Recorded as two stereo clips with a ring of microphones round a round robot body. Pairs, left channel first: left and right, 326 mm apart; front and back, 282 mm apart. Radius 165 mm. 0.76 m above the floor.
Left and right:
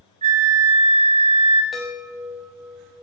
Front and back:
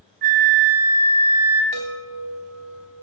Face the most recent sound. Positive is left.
turn(degrees=180)